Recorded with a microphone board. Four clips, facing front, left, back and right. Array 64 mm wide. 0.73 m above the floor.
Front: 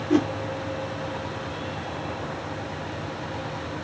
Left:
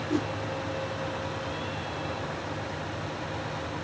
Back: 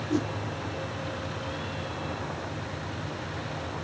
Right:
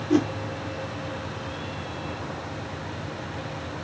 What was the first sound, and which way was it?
A whoosh, 30° right.